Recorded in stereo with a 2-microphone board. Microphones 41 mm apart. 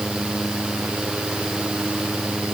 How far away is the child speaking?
I don't hear a child speaking.